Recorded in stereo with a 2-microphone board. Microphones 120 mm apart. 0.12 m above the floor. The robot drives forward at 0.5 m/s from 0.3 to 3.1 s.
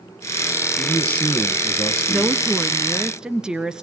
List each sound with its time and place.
0.8 s a man speaking: 10° left (ahead or behind), 2.5 m; by 2.4 s 15° left (ahead or behind), 1.7 m
2.1 s a woman speaking: 10° right (ahead or behind), 1.1 m; by 3.8 s 5° right (ahead or behind), 1.4 m